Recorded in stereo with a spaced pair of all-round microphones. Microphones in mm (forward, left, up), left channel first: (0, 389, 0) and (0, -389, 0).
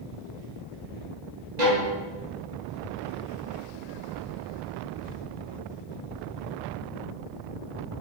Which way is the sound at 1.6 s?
60° right (ahead or behind).